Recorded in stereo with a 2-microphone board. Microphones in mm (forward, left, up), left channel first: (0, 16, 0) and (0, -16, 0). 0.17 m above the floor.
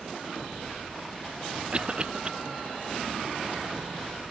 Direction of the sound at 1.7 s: 35° right (ahead or behind).